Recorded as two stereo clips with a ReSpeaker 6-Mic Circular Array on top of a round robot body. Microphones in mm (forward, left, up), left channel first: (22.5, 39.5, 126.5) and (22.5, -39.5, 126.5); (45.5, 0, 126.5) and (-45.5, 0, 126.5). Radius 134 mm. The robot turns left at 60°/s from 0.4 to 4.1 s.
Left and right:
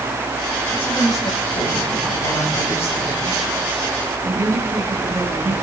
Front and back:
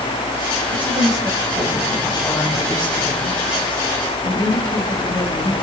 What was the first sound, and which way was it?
A woman speaking, 160° left.